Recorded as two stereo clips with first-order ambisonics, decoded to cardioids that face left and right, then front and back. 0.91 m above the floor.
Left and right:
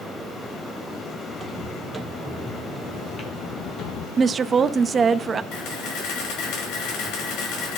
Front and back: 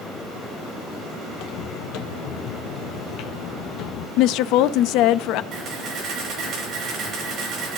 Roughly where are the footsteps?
Ahead.